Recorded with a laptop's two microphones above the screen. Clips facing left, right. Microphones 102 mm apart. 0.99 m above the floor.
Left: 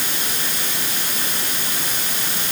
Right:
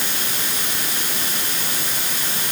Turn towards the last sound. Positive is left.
No sound to turn to.